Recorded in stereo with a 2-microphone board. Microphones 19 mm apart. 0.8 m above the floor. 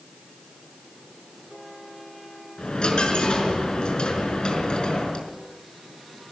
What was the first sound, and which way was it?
A dropped coin, 50° left (ahead or behind).